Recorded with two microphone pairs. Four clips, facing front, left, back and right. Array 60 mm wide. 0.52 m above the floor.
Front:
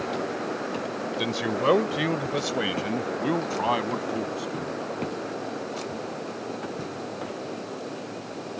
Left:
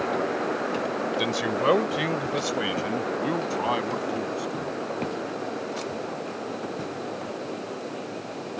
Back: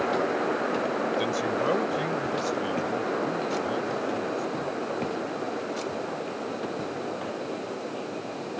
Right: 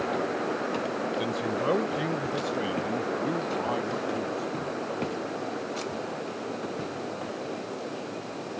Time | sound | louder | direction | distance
1.2 | a man speaking | left 6 dB, even | 75° left | ?